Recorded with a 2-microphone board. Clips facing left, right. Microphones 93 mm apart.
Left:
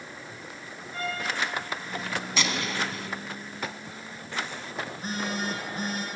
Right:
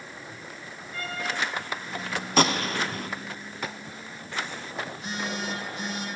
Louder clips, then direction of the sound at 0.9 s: Left 1 dB; 30° left (ahead or behind).